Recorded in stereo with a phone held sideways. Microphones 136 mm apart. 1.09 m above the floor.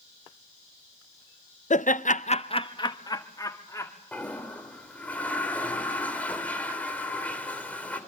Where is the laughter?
60° left (ahead or behind), 0.7 m; by 3.9 s 20° left (ahead or behind), 2.5 m.